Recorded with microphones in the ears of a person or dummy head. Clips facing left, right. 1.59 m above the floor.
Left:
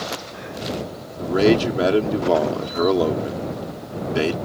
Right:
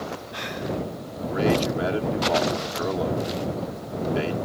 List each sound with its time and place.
1.2 s a man speaking: 65° left (ahead or behind)